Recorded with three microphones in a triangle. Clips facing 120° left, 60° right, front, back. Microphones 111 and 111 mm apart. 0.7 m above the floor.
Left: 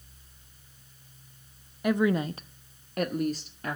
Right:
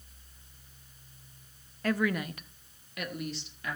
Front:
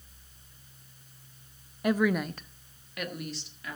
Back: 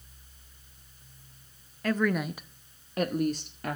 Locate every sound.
1.8 s a woman speaking: 55° left, 0.7 m; by 3.8 s 160° left, 1.4 m